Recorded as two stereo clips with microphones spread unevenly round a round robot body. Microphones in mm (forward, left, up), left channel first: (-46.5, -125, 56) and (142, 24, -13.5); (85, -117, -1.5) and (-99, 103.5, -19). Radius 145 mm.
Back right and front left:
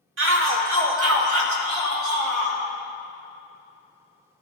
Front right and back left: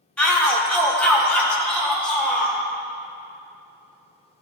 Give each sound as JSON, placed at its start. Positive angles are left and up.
{"t": 0.2, "sound": "a shout", "azimuth_deg": 35, "distance_m": 1.9}